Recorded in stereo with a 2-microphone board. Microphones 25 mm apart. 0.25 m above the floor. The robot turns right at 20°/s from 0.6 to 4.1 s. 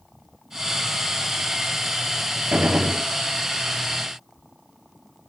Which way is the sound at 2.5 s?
70° right (ahead or behind).